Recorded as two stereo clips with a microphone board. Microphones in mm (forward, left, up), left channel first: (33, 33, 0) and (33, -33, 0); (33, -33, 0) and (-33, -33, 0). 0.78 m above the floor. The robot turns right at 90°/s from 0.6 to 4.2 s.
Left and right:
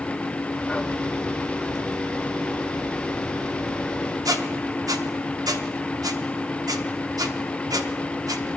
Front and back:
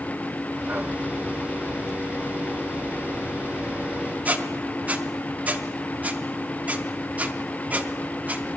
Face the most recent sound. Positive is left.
turn(degrees=-110)